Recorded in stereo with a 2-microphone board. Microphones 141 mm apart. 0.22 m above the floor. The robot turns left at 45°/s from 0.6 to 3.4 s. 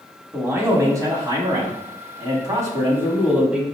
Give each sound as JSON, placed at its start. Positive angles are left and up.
{"t": 0.3, "sound": "a man speaking", "azimuth_deg": -40, "distance_m": 1.2}